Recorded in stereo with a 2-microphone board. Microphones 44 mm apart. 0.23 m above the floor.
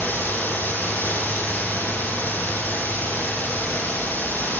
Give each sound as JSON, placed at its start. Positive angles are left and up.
{"t": 0.0, "sound": "running water", "side_deg": 45, "distance_m": 4.5}